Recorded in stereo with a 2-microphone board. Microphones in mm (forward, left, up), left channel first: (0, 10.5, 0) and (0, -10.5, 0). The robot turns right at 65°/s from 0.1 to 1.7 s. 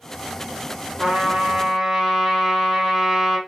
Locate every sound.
1.0 s a trumpet: 65° right, 3 m; by 3.4 s 20° right, 3 m